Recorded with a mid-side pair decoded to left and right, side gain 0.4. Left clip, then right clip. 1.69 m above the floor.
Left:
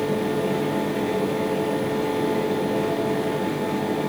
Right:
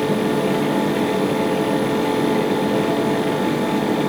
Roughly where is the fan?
Ahead right.